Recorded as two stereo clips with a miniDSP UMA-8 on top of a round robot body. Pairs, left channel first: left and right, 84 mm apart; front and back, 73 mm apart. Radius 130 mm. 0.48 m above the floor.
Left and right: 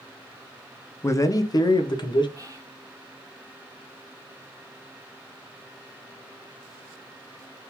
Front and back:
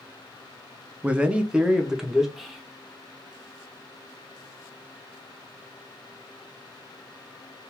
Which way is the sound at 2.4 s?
95° right.